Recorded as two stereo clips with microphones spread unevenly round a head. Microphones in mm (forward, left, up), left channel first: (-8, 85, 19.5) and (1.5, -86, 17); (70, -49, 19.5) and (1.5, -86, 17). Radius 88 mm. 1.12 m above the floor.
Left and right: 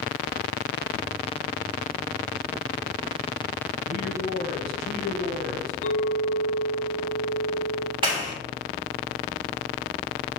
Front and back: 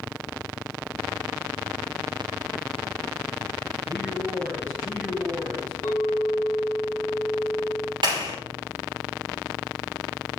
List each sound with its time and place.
3.9 s a man speaking: 100° left, 3.5 m
5.8 s a clink: 85° left, 3 m
8.0 s a clap: 150° right, 3 m